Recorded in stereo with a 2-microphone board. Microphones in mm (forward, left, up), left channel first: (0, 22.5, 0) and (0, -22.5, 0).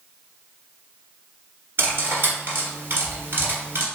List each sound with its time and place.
1.8 s cutlery clinking: 55° right (ahead or behind), 1.4 m